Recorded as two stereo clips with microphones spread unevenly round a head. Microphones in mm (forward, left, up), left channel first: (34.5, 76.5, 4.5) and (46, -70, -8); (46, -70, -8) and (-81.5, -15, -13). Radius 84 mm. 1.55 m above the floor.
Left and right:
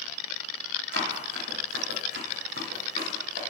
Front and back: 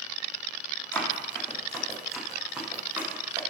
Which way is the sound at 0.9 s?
100° right.